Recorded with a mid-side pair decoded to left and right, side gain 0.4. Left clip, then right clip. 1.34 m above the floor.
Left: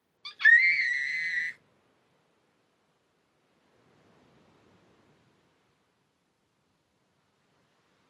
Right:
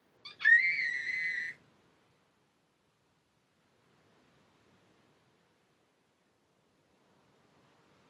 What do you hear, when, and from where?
0.2 s a scream: 55° left, 0.6 m